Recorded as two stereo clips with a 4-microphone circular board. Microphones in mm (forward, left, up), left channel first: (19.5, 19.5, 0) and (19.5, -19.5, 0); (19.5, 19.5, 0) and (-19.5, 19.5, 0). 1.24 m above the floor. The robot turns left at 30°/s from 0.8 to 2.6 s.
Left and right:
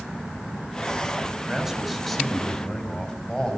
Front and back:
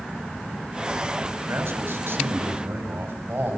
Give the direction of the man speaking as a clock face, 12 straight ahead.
6 o'clock.